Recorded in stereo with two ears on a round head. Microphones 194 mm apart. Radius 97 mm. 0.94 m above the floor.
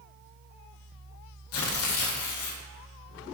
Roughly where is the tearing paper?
Left.